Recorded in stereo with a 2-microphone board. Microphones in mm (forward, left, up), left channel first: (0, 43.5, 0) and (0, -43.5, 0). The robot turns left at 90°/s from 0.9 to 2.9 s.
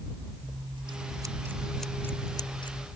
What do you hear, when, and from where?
0.4 s scissors: 100° right; by 2.9 s 80° left